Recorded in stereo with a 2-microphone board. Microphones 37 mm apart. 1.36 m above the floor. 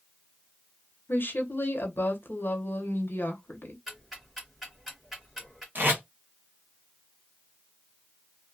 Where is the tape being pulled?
60° right (ahead or behind), 1.0 m.